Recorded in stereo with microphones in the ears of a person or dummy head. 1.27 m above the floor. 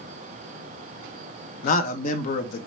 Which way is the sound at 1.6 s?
50° left (ahead or behind).